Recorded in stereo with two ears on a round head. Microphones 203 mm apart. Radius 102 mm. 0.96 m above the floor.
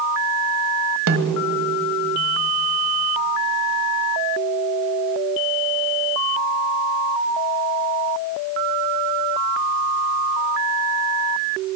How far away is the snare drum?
About 1.8 m.